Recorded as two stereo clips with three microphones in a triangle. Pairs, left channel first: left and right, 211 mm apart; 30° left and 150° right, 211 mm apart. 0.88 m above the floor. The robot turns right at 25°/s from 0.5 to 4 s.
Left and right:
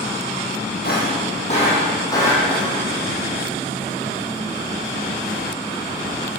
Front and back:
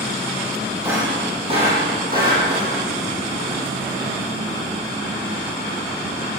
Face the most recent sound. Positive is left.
turn(degrees=-150)